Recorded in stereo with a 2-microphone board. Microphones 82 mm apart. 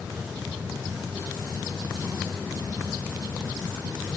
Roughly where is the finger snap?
I don't hear a finger snap.